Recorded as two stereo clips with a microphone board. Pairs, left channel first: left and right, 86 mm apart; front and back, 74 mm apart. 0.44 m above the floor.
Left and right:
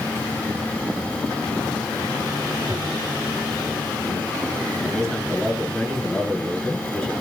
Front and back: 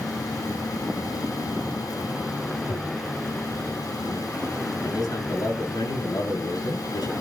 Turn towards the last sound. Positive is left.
turn(degrees=10)